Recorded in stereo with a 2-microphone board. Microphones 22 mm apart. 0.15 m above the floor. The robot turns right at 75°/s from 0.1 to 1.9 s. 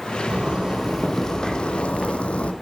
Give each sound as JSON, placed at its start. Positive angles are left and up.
{"t": 0.3, "sound": "a zipper", "azimuth_deg": -50, "distance_m": 1.1}